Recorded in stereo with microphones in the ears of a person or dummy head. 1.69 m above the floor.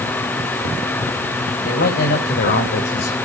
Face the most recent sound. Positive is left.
turn(degrees=55)  # may be behind; listen again after turning